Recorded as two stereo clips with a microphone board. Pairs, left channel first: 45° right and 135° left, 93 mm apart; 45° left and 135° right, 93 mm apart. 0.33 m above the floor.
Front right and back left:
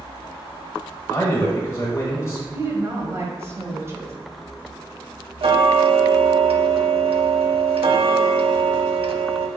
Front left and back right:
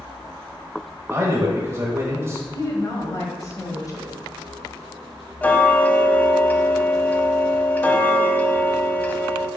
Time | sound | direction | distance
1.1 | a man speaking | 90° right | 1.2 m
2.5 | a woman speaking | 80° left | 1.6 m
5.4 | ticking | 115° left | 0.6 m